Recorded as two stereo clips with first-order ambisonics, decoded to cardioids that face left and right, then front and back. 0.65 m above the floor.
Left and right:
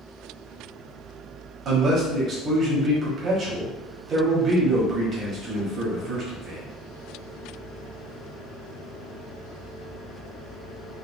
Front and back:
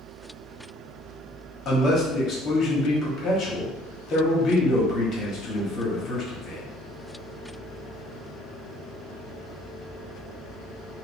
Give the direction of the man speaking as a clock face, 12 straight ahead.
1 o'clock.